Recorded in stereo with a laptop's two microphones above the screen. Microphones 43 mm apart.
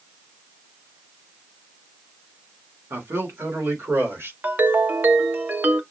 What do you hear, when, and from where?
2.9 s a man speaking: 80° right, 3 m
4.4 s a ringtone: 50° right (ahead or behind), 0.7 m